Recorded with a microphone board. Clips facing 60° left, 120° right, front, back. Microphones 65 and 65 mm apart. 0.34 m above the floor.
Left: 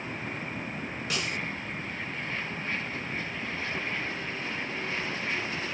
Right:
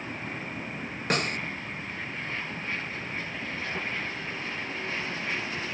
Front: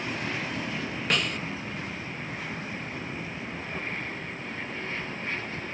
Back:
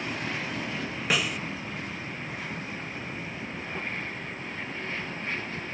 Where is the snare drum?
100° right, 0.5 m.